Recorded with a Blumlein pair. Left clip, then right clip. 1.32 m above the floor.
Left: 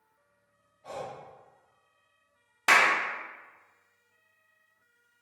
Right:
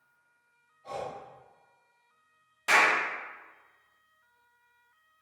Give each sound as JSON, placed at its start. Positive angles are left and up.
{"t": 0.8, "sound": "breathing", "azimuth_deg": 65, "distance_m": 1.1}
{"t": 2.7, "sound": "a clap", "azimuth_deg": 30, "distance_m": 0.7}